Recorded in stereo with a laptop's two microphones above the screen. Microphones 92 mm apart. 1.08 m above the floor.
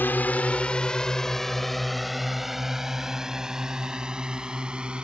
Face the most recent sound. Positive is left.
turn(degrees=-10)  # may be behind; listen again after turning